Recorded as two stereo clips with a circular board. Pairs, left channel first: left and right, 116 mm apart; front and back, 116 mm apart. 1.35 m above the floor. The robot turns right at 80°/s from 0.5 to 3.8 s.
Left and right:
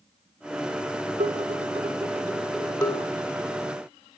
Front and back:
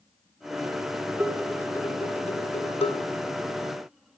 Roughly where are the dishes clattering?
Right.